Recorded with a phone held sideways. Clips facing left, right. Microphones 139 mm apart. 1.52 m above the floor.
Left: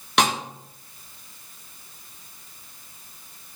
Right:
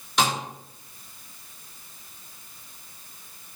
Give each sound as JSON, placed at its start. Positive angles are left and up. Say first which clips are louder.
{"t": 0.2, "sound": "a snare drum", "louder": "left 2 dB", "side_deg": 65, "distance_m": 3.5}